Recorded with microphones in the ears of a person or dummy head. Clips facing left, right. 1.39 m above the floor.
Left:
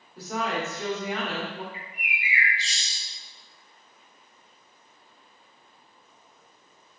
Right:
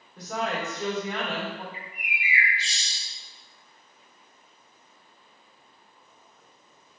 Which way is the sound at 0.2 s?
10° left (ahead or behind).